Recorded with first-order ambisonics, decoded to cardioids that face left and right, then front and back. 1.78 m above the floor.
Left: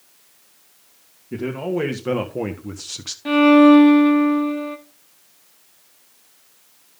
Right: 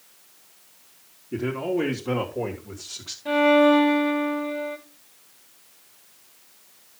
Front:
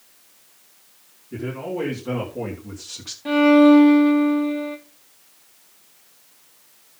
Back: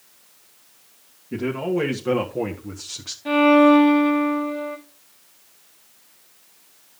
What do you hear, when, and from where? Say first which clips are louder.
1.3 s a man speaking: left 1 dB, back 4 dB; 125° left, 2 m; by 3.1 s 90° left, 1.3 m
3.2 s a violin: left 5 dB, even; 80° left, 2.5 m